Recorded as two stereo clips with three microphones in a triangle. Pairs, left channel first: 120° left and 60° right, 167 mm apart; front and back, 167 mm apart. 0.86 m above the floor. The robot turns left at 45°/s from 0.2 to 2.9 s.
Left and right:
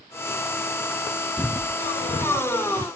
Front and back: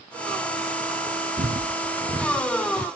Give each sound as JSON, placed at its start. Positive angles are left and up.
{"t": 1.4, "sound": "footsteps", "azimuth_deg": -160, "distance_m": 1.4}